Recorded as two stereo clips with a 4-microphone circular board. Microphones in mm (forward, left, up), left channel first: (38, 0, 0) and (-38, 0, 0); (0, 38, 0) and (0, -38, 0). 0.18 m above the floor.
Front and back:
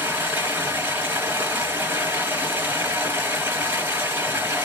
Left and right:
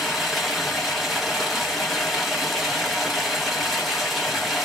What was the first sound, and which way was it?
Running water, straight behind.